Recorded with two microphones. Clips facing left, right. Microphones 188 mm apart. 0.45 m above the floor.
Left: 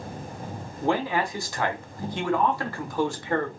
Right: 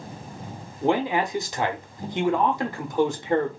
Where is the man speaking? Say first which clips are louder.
Right 3 dB; 20° right (ahead or behind), 0.8 m.